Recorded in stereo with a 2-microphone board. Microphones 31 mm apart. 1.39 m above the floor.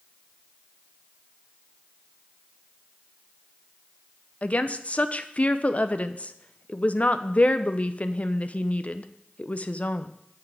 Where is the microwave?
I don't hear a microwave.